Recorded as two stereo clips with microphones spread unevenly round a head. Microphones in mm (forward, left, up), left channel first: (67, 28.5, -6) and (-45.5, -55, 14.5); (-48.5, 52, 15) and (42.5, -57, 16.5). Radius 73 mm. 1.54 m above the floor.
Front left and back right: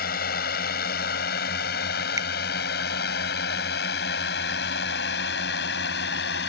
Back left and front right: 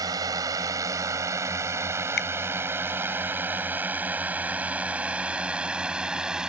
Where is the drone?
15° left; by 6.5 s 35° left.